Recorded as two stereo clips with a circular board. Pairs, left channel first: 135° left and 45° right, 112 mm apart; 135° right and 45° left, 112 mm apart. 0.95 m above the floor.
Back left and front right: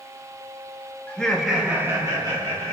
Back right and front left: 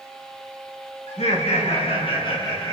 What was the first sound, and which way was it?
Laughter, 145° right.